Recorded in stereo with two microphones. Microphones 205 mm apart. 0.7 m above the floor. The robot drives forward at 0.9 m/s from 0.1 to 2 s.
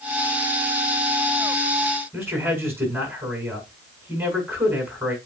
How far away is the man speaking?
About 5.5 m.